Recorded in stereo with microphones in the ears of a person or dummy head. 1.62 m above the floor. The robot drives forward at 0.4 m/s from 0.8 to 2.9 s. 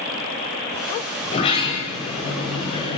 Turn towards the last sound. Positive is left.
turn(degrees=35)  # may be behind; listen again after turning